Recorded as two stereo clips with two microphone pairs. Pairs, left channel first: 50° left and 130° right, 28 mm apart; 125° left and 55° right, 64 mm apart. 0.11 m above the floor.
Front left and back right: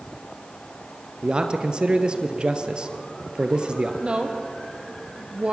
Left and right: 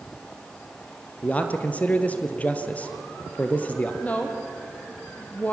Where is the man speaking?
175° right, 2 m.